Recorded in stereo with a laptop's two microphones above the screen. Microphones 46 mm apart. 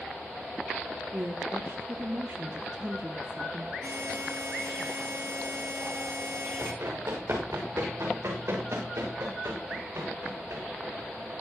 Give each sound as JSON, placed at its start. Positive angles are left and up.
{"t": 1.1, "sound": "a woman speaking", "side_deg": -60, "distance_m": 1.4}
{"t": 3.8, "sound": "a buzzer", "side_deg": -75, "distance_m": 8.0}
{"t": 6.6, "sound": "running footsteps", "side_deg": -65, "distance_m": 8.5}